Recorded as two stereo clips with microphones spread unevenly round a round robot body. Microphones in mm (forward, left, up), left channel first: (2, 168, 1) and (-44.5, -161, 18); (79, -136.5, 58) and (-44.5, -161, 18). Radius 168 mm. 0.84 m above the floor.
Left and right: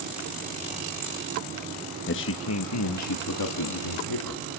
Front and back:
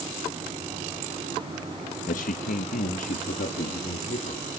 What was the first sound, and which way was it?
A man speaking, 35° left.